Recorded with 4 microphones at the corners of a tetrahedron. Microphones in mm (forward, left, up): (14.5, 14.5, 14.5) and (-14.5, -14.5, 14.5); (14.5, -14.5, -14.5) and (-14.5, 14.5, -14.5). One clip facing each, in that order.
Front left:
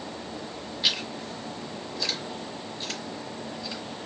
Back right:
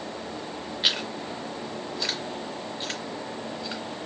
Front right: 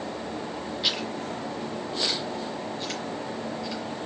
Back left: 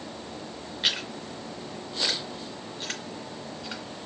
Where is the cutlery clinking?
No cutlery clinking in this recording.